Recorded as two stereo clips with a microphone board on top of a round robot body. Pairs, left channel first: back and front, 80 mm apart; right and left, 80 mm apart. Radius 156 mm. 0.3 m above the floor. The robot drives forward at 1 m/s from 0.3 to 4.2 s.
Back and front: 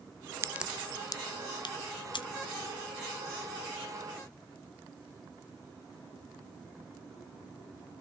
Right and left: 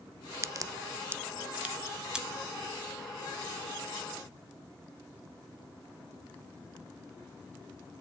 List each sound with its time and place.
0.4 s a crack: 50° left, 0.6 m; by 2.2 s 170° left, 1.6 m